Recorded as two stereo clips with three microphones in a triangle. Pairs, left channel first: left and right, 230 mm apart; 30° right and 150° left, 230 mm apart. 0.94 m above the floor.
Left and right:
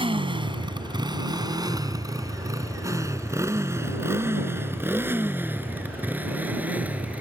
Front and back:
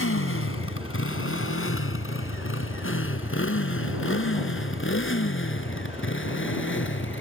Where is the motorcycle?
25° right; by 7.2 s 5° right.